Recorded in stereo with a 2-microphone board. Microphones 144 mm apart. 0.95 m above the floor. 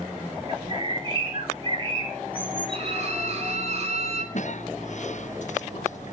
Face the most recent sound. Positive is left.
turn(degrees=55)  # may be behind; listen again after turning